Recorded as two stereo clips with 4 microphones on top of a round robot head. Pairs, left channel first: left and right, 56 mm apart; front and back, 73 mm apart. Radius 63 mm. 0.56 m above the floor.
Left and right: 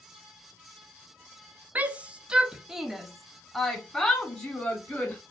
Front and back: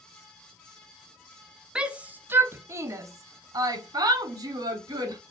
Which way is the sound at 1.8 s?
115° right.